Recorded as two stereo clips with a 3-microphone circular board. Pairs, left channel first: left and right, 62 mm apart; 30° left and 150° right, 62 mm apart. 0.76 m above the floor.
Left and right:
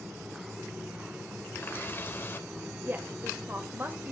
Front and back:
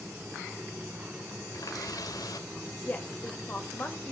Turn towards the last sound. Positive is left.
turn(degrees=-30)